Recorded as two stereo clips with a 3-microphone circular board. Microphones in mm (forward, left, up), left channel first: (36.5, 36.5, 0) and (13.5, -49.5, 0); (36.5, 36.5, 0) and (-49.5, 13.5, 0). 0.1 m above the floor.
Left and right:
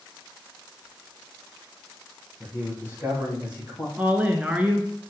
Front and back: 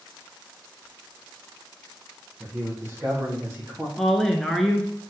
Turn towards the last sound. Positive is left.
turn(degrees=-65)